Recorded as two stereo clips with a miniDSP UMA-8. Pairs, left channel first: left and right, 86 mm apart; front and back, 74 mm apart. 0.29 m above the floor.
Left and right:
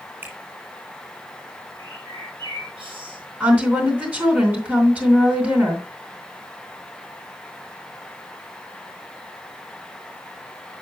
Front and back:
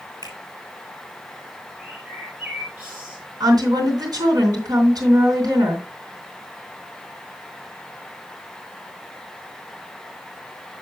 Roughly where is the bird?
Right.